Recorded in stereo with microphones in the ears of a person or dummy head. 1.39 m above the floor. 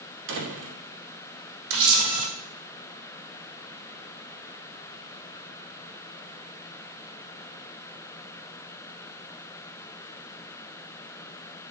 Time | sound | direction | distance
0.3 | a door slam | 70° right (ahead or behind) | 2.5 m
1.7 | a camera shutter | 70° right (ahead or behind) | 3 m